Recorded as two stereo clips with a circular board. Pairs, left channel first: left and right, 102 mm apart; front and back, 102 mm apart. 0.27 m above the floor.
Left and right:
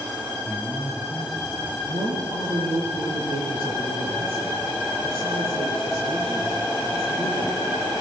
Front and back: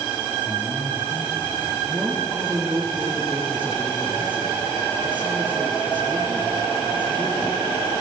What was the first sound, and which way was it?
A man speaking, 10° left.